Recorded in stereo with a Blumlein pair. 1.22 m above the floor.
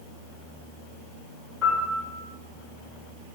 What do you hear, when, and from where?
1.6 s a piano: 20° left, 1.3 m